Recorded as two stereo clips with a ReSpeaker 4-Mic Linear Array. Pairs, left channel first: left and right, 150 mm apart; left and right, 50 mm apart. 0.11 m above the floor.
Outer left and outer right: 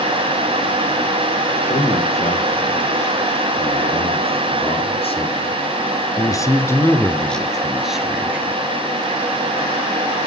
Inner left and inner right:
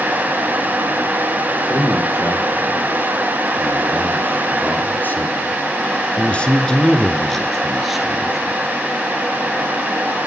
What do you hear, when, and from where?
1.6 s a man speaking: 55° left (ahead or behind), 3 m; by 8.6 s 10° right (ahead or behind), 1.9 m